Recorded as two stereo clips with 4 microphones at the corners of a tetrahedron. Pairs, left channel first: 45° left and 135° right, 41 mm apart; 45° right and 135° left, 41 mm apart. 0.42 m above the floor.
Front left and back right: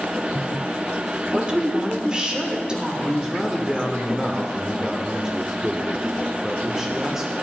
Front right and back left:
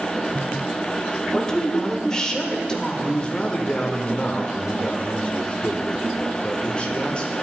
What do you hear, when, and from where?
1.3 s a woman speaking: 95° right, 1.1 m
3.0 s a man speaking: 70° right, 0.8 m